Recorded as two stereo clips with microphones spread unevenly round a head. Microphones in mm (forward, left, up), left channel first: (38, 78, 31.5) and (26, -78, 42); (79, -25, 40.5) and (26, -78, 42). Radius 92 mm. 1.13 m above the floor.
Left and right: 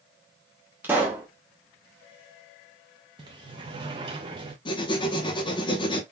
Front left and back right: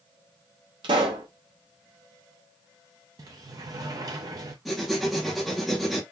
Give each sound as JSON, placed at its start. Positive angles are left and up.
{"t": 0.8, "sound": "a pop", "azimuth_deg": -175, "distance_m": 0.8}
{"t": 3.2, "sound": "a sliding door", "azimuth_deg": -145, "distance_m": 0.5}
{"t": 4.7, "sound": "writing", "azimuth_deg": 135, "distance_m": 0.8}